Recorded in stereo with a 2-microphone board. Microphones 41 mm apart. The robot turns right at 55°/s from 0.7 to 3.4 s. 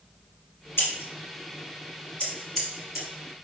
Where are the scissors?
75° left (ahead or behind), 2.5 m; by 3.1 s 20° right (ahead or behind), 2.5 m.